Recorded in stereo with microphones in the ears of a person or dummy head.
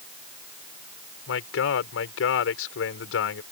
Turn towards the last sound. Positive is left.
turn(degrees=80)